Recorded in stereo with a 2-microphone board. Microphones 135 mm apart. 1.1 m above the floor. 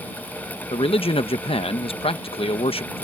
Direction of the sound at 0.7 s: 40° left (ahead or behind).